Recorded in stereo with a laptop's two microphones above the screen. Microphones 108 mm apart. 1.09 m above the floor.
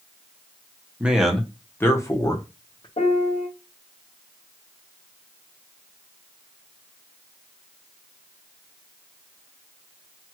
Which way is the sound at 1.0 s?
15° right (ahead or behind).